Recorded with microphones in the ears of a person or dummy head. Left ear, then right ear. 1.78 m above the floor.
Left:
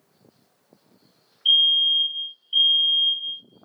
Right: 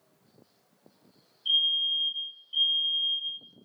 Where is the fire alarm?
35° left (ahead or behind), 1.9 m.